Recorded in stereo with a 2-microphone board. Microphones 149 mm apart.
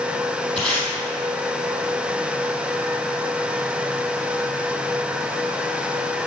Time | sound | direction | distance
0.6 | tape being pulled | 5° left (ahead or behind) | 3 m